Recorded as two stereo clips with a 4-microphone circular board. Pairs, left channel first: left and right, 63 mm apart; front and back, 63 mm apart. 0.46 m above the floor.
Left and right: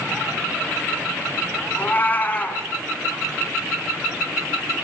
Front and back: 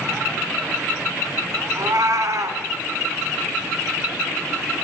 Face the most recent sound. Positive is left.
turn(degrees=150)